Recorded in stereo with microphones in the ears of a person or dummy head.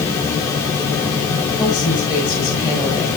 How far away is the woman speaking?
About 9 m.